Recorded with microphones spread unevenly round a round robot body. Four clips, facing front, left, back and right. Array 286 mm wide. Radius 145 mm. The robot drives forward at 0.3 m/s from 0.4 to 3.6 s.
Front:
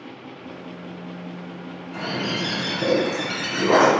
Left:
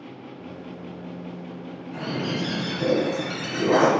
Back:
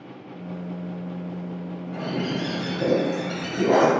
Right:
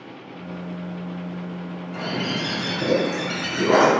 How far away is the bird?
About 1.0 m.